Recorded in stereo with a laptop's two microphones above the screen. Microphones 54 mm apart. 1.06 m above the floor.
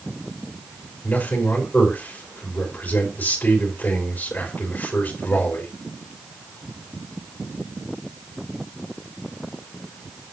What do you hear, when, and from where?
1.0 s a man speaking: 40° left (ahead or behind), 3 m